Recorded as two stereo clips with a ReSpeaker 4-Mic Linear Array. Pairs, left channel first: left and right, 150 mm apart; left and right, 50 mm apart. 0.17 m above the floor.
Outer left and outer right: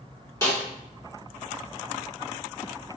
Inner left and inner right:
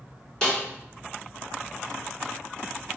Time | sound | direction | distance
0.4 | a snare drum | 20° left (ahead or behind) | 1.5 m